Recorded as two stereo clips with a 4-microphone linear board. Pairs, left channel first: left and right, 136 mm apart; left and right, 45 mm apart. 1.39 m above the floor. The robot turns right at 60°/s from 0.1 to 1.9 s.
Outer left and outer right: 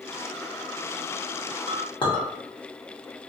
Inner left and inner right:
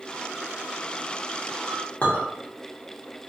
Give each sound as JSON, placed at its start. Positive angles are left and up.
{"t": 1.7, "sound": "a clink", "side_deg": 40, "distance_m": 1.0}